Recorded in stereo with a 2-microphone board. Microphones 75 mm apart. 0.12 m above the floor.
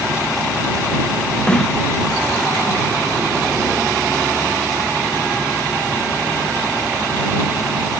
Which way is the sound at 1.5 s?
15° left (ahead or behind).